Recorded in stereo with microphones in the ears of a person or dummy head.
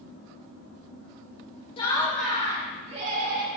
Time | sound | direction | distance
1.8 | laughter | 25° left (ahead or behind) | 0.6 m